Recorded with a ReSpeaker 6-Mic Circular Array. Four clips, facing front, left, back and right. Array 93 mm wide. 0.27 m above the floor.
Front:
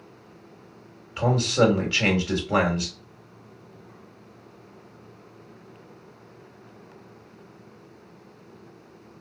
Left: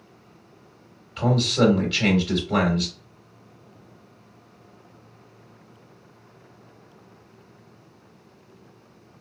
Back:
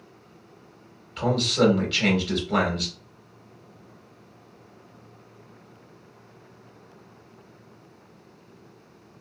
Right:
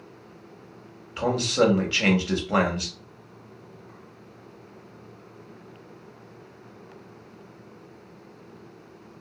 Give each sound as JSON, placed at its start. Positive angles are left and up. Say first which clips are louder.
{"t": 1.2, "sound": "a man speaking", "louder": "left 1 dB, front 1 dB", "azimuth_deg": -45, "distance_m": 1.4}